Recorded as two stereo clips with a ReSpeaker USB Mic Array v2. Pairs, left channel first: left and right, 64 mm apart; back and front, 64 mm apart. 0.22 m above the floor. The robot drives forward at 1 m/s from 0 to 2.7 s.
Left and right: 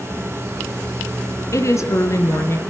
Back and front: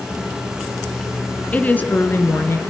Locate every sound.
1.5 s a woman speaking: 115° left, 2.5 m; by 2.6 s 135° left, 3 m